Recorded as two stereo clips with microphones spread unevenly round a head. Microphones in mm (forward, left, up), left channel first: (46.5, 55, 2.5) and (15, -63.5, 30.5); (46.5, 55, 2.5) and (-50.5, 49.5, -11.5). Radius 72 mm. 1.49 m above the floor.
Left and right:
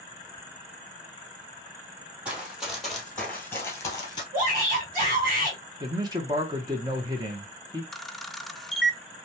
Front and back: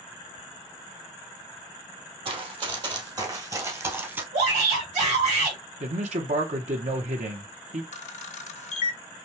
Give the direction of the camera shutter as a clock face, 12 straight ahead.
12 o'clock.